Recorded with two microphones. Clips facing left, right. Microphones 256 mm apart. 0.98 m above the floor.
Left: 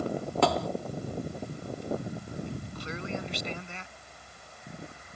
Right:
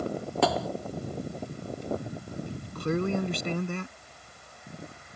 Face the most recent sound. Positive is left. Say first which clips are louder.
# right 7 dB
turn(degrees=-55)  # may be behind; listen again after turning